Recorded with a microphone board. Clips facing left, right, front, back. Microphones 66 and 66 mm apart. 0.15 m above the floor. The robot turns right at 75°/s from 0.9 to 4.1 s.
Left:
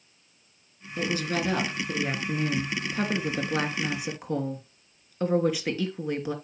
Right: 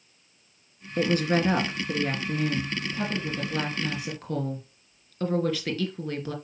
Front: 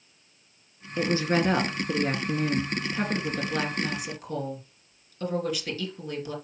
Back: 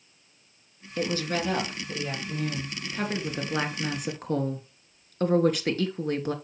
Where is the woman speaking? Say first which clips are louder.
Right 5 dB, front 4 dB; 75° right, 2.5 m; by 6.3 s 160° left, 2.5 m.